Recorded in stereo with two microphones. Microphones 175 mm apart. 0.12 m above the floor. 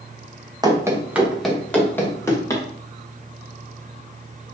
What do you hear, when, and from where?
0.6 s running footsteps: 20° right (ahead or behind), 2 m; by 2.6 s 20° left (ahead or behind), 3.5 m